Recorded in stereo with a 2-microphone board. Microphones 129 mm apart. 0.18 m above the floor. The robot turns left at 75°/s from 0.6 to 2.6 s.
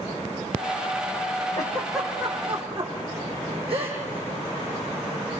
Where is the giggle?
30° left (ahead or behind), 8.5 m; by 5.4 s 45° right (ahead or behind), 8.5 m.